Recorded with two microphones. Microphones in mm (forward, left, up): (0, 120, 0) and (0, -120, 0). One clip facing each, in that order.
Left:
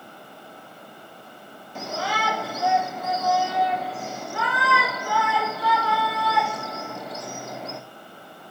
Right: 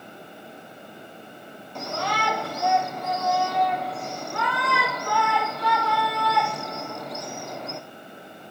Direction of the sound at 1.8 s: Centre (ahead or behind).